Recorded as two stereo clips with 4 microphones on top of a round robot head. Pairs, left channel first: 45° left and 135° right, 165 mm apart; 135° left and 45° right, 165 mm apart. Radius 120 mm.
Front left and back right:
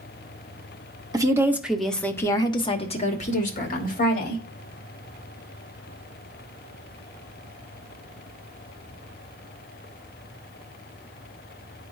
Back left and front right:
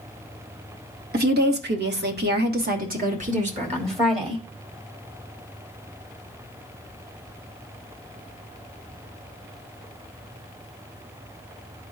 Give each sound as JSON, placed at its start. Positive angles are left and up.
{"t": 1.1, "sound": "a woman speaking", "azimuth_deg": -70, "distance_m": 1.3}